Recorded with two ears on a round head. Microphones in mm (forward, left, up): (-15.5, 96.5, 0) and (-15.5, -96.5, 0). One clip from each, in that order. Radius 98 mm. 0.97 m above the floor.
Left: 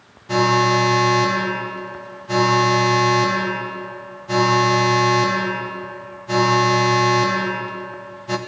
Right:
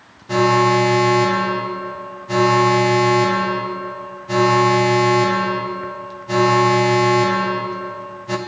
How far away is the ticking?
No ticking in this recording.